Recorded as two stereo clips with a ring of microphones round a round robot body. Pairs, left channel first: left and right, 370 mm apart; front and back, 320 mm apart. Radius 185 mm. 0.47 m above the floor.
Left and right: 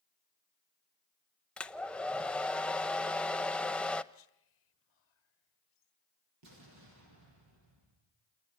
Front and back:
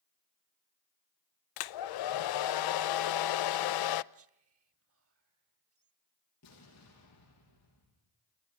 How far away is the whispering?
About 1.9 m.